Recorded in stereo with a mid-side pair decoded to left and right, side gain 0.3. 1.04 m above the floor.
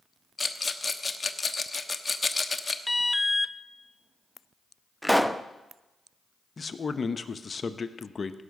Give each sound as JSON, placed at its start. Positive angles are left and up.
{"t": 0.4, "sound": "a rattle", "azimuth_deg": 30, "distance_m": 1.0}
{"t": 2.9, "sound": "an alarm", "azimuth_deg": 20, "distance_m": 0.6}
{"t": 5.0, "sound": "a pop", "azimuth_deg": 0, "distance_m": 0.7}
{"t": 6.6, "sound": "a man speaking", "azimuth_deg": 45, "distance_m": 0.9}